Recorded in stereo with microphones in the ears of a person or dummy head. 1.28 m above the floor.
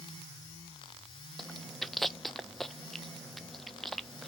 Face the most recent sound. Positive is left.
turn(degrees=5)  # may be behind; listen again after turning